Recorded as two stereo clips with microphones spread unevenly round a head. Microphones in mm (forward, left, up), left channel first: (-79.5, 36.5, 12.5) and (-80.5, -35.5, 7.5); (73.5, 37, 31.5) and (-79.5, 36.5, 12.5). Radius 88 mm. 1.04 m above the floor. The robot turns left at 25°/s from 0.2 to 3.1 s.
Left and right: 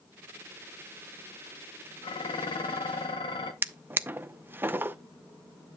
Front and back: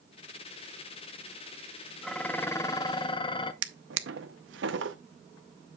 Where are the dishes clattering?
85° left, 0.8 m; by 3.5 s 60° left, 0.8 m.